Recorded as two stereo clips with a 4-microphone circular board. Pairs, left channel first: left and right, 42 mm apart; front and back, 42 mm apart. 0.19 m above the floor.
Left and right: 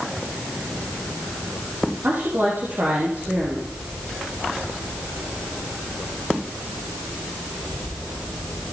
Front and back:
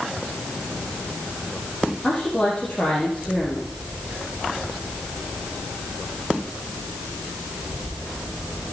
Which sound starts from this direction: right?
A woman speaking, at 2.0 s.